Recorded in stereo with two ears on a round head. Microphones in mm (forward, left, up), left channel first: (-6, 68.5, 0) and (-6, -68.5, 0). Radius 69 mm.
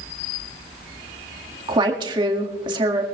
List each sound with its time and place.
1.7 s a woman speaking: 30° right (ahead or behind), 1.8 m